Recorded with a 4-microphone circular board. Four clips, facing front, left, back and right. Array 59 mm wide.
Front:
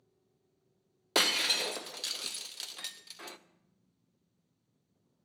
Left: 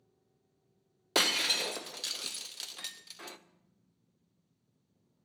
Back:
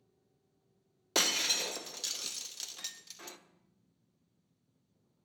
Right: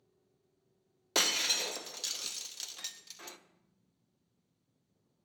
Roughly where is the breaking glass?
Ahead left.